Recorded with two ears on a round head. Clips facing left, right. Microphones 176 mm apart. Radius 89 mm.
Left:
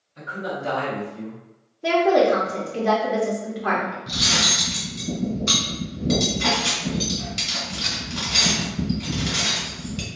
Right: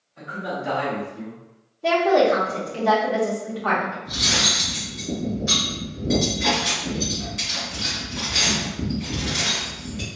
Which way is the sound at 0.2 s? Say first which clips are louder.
Even; 55° left (ahead or behind).